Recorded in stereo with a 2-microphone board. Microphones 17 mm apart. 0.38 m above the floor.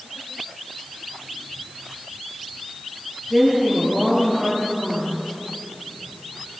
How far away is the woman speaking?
About 7.5 m.